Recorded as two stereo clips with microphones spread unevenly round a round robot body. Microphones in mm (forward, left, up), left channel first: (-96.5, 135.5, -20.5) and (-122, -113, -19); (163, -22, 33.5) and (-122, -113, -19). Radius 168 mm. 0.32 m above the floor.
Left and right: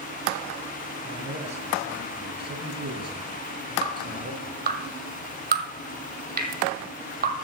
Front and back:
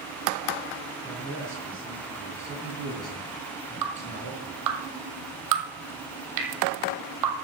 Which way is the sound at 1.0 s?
80° right.